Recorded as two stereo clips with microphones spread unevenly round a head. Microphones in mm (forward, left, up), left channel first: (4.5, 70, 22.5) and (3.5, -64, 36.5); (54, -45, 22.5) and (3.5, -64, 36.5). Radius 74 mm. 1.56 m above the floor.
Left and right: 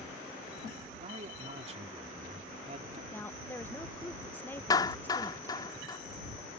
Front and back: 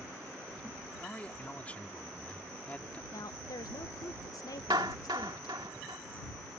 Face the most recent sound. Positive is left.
turn(degrees=155)